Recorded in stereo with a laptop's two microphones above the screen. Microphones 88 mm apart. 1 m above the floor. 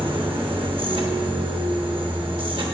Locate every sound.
0.0 s a machine running: 70° right (ahead or behind), 0.9 m